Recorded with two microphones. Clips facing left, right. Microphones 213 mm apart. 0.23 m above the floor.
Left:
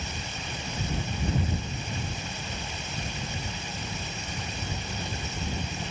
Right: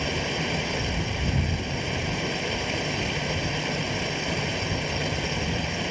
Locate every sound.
0.0 s running water: 75° right (ahead or behind)